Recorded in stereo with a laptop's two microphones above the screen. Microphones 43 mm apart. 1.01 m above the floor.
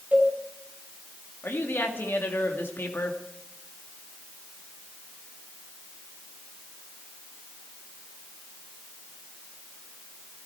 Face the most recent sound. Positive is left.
turn(degrees=65)  # may be behind; listen again after turning